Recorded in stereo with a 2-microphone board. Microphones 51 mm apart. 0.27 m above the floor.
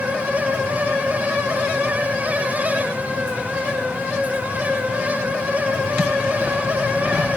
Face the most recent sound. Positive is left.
No sound to turn to.